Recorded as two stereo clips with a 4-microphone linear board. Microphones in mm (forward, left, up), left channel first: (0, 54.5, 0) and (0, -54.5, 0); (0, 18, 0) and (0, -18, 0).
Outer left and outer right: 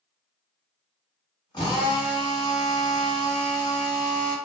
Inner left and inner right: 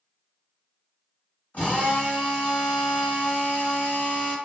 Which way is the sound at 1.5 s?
45° left (ahead or behind).